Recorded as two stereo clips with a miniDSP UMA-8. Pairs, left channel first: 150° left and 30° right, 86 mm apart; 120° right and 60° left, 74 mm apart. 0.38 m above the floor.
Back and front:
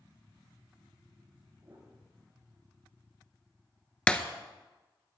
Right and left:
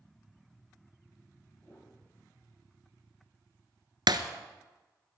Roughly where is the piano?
Right.